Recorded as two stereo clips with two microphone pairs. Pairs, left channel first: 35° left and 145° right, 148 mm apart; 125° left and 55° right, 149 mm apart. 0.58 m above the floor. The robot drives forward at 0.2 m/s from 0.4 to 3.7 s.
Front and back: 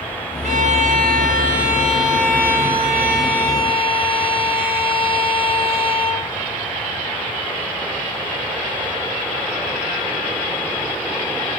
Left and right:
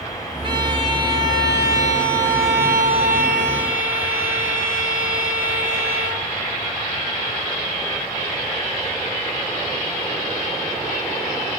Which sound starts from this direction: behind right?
A violin, at 0.4 s.